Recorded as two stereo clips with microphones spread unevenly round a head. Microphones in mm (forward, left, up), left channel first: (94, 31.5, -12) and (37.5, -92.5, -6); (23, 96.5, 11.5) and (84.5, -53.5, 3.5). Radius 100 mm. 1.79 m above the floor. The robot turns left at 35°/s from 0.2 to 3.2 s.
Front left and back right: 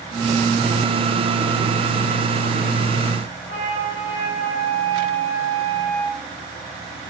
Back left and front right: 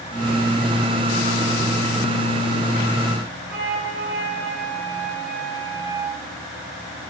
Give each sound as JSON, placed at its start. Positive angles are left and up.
{"t": 3.5, "sound": "a flute", "azimuth_deg": -90, "distance_m": 5.0}